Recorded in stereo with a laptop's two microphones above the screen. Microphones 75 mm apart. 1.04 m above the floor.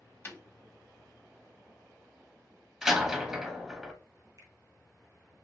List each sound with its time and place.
0.2 s breaking glass: 35° left (ahead or behind), 1.2 m
2.8 s a door slam: 10° right (ahead or behind), 1.0 m
4.4 s a finger snap: 40° right (ahead or behind), 0.8 m